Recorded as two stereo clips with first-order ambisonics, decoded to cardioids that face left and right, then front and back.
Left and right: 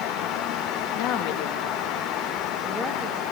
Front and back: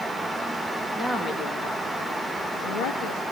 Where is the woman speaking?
85° left, 2.5 m; by 3.2 s 5° left, 3 m.